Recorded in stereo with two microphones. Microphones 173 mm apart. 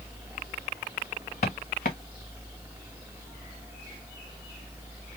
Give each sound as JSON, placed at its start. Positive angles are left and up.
{"t": 1.4, "sound": "footsteps", "side_deg": 55, "distance_m": 1.5}